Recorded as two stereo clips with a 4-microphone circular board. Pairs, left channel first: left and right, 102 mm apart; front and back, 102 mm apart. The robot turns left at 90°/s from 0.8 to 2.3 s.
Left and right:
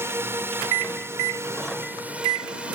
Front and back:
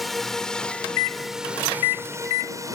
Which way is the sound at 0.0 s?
90° right.